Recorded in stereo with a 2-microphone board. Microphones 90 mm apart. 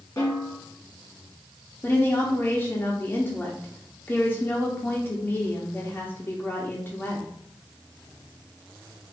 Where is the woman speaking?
20° left (ahead or behind), 0.6 m.